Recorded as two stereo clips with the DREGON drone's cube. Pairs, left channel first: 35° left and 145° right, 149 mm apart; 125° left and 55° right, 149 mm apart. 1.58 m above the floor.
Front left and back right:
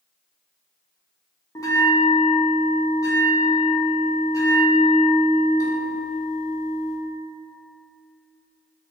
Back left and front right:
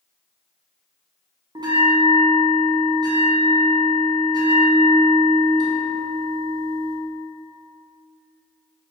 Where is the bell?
15° right, 0.5 m.